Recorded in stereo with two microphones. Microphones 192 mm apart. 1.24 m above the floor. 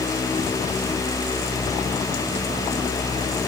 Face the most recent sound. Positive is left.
No sound to turn to.